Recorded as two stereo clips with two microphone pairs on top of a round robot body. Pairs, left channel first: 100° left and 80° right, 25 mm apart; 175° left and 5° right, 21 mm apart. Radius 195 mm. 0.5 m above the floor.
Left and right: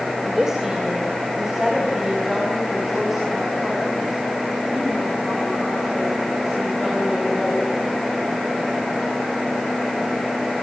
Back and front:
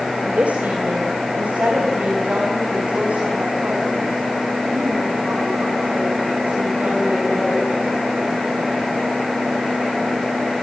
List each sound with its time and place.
0.2 s a woman speaking: 15° right, 3 m; by 7.8 s straight ahead, 10 m